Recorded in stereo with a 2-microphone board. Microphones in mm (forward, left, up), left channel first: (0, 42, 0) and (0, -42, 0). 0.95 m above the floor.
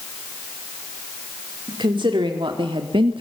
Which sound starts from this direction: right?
A woman speaking, at 1.7 s.